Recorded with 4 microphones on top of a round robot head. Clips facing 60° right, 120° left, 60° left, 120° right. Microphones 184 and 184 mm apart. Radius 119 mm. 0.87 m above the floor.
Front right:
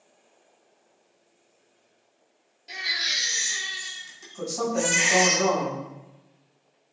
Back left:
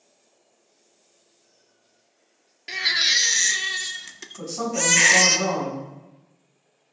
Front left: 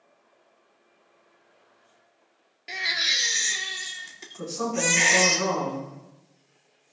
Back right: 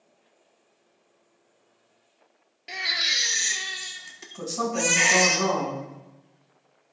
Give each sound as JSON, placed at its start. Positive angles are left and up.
{"t": 2.7, "sound": "a baby crying", "azimuth_deg": 145, "distance_m": 0.6}
{"t": 4.4, "sound": "a woman speaking", "azimuth_deg": -140, "distance_m": 4.0}